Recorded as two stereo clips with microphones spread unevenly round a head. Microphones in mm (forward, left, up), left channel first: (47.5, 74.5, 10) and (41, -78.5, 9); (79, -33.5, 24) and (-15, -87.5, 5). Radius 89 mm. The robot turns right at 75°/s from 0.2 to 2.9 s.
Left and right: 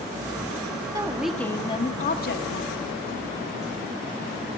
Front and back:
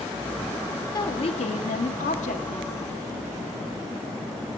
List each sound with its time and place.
0.9 s a woman speaking: 30° right, 1.8 m; by 3.0 s 120° left, 1.8 m